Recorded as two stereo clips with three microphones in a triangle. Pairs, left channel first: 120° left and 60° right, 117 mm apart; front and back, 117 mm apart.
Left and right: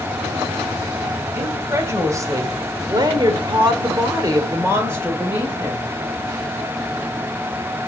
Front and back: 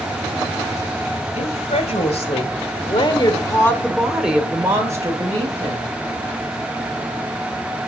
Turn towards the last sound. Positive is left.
turn(degrees=-135)